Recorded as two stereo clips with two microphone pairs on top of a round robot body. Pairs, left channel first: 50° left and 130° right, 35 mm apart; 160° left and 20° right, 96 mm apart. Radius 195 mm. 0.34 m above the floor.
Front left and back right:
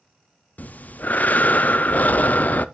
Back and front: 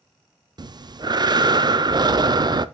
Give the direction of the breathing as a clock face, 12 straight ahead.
11 o'clock.